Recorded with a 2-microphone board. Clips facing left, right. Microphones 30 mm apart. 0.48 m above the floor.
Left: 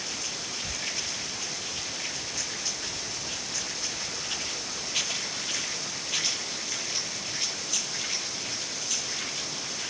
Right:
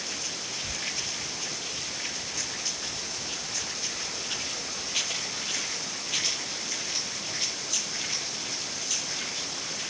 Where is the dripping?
I don't hear dripping.